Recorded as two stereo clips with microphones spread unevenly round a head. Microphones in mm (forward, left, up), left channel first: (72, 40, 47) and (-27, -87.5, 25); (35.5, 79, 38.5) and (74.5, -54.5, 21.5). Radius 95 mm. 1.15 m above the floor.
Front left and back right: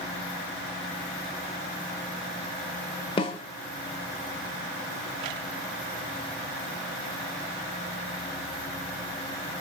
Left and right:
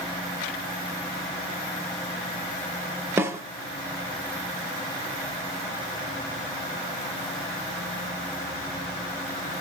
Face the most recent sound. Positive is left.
turn(degrees=0)